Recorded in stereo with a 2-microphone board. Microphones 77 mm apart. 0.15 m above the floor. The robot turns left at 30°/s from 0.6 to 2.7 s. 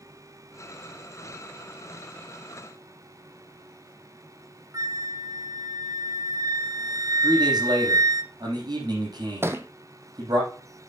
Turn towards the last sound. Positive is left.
turn(degrees=-30)  # may be behind; listen again after turning